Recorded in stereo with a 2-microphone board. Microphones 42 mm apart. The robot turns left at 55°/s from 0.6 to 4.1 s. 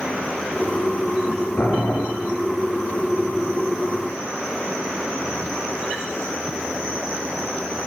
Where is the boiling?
55° left (ahead or behind), 3.5 m; by 2.1 s 30° left (ahead or behind), 3.5 m.